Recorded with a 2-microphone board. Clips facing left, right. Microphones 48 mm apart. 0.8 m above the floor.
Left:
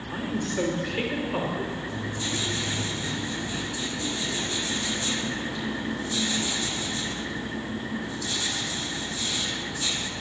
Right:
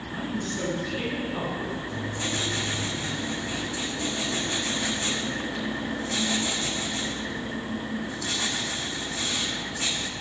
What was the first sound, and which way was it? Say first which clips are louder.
A woman speaking: left 3 dB; 70° left (ahead or behind).